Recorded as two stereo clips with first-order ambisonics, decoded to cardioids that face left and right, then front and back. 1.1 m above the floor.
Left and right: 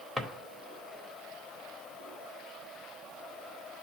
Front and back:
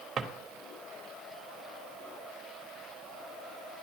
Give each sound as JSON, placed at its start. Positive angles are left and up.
{"t": 0.2, "sound": "a drawer", "azimuth_deg": -165, "distance_m": 0.9}